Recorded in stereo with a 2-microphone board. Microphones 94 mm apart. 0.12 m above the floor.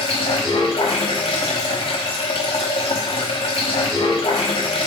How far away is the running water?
About 1.1 m.